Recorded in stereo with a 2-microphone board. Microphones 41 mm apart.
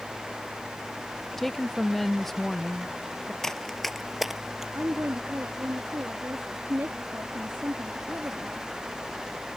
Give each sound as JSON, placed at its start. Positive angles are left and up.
{"t": 1.4, "sound": "a woman speaking", "side_deg": 5}
{"t": 3.4, "sound": "running footsteps", "side_deg": 15}
{"t": 4.8, "sound": "a woman speaking", "side_deg": -65}